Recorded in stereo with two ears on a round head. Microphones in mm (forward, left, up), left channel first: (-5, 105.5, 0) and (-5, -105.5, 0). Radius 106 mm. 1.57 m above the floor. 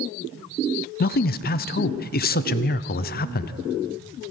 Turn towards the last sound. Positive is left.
turn(degrees=40)  # may be behind; listen again after turning